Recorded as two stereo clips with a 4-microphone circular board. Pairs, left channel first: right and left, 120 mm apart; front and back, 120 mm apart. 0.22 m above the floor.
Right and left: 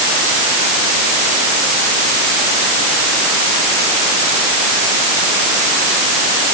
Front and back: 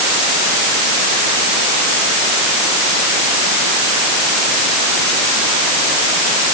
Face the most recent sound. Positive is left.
No sound to turn to.